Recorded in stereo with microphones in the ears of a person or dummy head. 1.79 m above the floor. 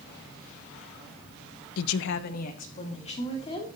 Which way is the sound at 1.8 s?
80° left.